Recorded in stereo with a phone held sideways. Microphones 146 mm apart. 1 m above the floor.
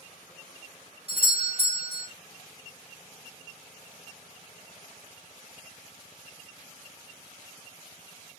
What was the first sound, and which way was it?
A doorbell, 40° right (ahead or behind).